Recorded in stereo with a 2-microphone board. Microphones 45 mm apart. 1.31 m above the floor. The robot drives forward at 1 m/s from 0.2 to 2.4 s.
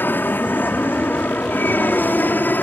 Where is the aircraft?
45° left (ahead or behind).